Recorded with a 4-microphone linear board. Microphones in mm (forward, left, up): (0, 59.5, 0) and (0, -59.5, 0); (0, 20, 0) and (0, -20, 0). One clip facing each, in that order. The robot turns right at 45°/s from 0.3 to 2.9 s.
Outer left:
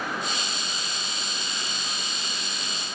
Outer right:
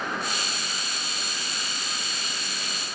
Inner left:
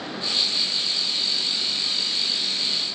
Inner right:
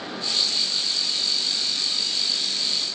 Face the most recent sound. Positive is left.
No sound to turn to.